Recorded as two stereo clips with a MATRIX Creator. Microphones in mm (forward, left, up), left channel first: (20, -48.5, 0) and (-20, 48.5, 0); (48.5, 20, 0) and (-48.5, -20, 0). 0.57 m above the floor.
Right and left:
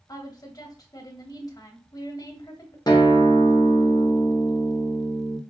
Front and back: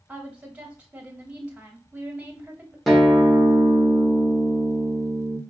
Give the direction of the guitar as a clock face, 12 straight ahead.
2 o'clock.